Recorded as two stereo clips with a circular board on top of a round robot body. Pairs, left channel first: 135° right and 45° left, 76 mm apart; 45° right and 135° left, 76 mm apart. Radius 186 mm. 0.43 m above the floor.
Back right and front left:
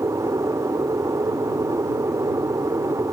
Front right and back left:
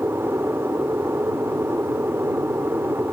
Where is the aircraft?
80° left.